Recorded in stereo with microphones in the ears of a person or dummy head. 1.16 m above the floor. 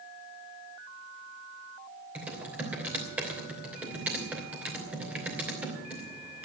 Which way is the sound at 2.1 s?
5° right (ahead or behind).